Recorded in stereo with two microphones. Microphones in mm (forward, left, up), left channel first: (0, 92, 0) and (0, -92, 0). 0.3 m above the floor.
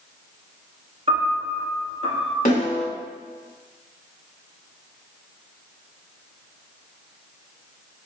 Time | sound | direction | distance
1.1 | a piano | 35° right (ahead or behind) | 1.2 m
2.5 | a snare drum | 50° left (ahead or behind) | 1.2 m